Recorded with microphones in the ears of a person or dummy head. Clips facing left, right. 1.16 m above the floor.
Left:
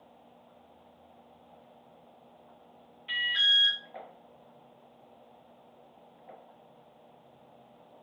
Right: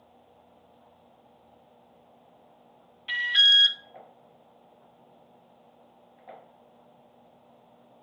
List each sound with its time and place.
3.1 s an alarm: 60° right (ahead or behind), 0.7 m